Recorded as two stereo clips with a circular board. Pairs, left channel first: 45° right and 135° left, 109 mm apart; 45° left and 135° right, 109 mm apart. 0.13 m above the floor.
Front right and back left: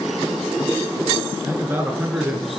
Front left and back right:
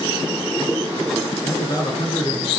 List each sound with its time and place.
1.4 s a man speaking: 85° left, 1.4 m; by 2.5 s 50° left, 1.5 m